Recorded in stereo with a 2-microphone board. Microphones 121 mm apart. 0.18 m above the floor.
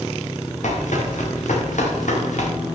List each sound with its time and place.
0.6 s running footsteps: 85° left, 6.5 m; by 2.5 s 90° left, 5 m